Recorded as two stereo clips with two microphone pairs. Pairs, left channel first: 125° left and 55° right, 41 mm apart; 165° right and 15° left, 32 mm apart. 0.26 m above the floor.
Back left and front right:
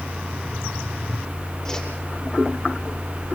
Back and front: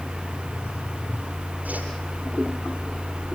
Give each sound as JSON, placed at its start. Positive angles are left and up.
{"t": 1.6, "sound": "a whoosh", "azimuth_deg": 55, "distance_m": 8.0}